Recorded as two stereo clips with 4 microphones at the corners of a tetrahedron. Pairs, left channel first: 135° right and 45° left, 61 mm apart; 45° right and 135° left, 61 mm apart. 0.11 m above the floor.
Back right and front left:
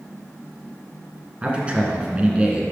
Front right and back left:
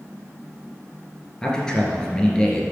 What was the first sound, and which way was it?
A man speaking, 10° left.